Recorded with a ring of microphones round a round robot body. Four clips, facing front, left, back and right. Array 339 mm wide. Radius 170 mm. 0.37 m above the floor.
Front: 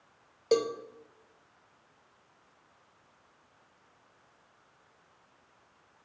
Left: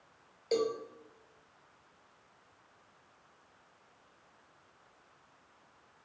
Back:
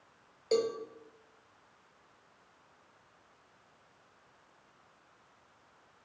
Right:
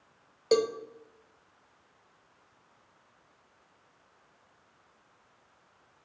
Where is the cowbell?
55° right, 0.8 m.